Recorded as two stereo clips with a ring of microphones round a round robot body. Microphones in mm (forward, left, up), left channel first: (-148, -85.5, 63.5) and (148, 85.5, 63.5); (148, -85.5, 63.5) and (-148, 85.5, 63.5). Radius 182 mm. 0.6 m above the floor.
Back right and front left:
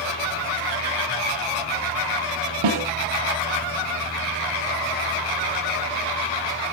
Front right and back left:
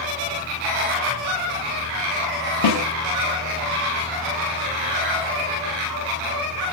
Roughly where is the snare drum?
Ahead.